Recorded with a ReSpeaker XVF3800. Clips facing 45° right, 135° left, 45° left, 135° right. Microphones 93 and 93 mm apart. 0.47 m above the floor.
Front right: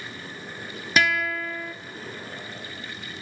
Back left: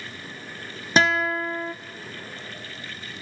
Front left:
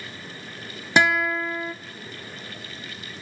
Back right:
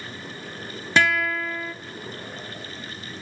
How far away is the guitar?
About 1.1 m.